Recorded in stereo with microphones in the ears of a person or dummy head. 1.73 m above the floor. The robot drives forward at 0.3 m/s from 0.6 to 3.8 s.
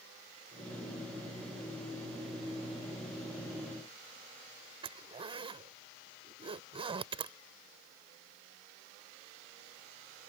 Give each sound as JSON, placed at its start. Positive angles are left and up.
{"t": 4.8, "sound": "a zipper", "side_deg": -30}